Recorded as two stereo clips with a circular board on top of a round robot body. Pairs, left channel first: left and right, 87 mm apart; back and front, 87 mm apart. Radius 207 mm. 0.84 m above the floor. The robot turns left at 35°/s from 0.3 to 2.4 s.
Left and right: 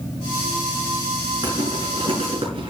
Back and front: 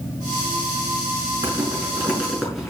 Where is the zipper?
55° right, 6.5 m; by 2.7 s 85° right, 6.5 m.